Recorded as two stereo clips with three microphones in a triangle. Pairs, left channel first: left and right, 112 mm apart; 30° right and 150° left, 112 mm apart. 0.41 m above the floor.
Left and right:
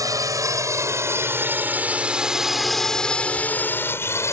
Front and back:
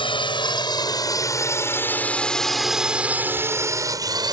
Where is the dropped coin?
I don't hear a dropped coin.